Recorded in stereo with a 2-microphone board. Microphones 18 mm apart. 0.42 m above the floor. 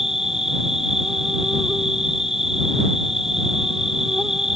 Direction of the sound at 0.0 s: 20° right (ahead or behind).